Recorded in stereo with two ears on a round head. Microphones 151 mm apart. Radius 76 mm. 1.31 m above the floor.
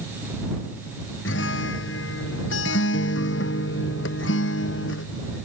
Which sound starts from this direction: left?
A guitar, at 1.2 s.